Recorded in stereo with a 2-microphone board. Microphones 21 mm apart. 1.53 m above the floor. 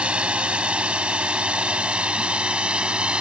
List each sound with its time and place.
0.0 s a drone: 70° right (ahead or behind); by 3.2 s 60° right (ahead or behind)